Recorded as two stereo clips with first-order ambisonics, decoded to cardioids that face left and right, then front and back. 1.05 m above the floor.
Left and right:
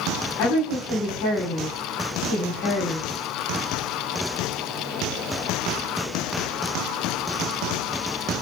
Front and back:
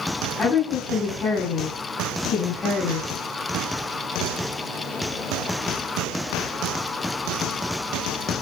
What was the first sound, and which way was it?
A woman speaking, 65° left.